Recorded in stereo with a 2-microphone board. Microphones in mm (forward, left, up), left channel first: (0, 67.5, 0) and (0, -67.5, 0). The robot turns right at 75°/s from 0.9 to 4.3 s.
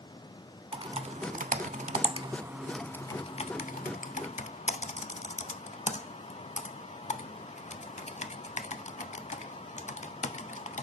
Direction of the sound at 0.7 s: 45° right (ahead or behind).